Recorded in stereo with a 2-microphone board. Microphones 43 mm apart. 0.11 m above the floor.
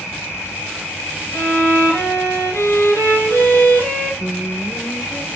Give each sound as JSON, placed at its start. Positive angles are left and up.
{"t": 0.0, "sound": "an insect", "side_deg": 75, "distance_m": 3.0}
{"t": 1.3, "sound": "a violin", "side_deg": 65, "distance_m": 8.0}
{"t": 4.2, "sound": "singing", "side_deg": -15, "distance_m": 1.5}